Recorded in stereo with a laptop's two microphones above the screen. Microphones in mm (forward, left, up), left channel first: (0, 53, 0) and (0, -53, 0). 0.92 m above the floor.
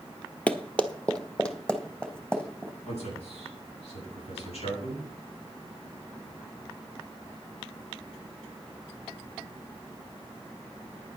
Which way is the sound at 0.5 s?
15° left (ahead or behind).